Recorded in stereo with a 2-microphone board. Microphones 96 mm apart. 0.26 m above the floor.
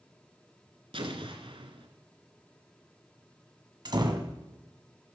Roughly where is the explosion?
Right.